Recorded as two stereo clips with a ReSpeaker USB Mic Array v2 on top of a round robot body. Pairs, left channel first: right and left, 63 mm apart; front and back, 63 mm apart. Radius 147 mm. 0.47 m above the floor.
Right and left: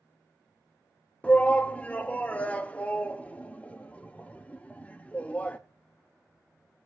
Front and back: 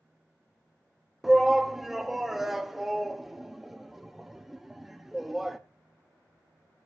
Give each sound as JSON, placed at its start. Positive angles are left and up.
{"t": 1.2, "sound": "a shout", "azimuth_deg": -100, "distance_m": 1.3}